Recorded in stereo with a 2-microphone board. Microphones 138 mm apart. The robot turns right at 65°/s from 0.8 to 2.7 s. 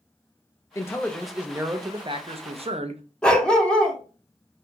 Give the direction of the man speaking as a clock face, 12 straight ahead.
7 o'clock.